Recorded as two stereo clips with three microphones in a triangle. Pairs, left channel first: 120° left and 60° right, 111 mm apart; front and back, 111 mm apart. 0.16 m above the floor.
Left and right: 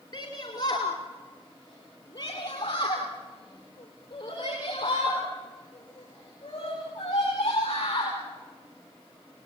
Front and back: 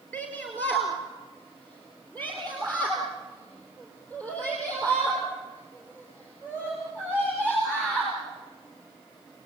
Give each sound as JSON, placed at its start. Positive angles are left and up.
{"t": 0.1, "sound": "a shout", "azimuth_deg": 75, "distance_m": 2.5}